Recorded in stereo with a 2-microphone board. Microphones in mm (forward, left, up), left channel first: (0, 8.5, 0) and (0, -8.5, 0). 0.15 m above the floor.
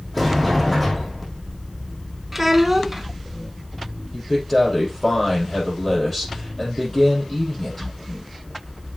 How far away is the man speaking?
About 5.5 m.